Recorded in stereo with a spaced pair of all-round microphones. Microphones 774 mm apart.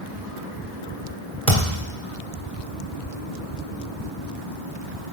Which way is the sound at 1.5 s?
65° right (ahead or behind).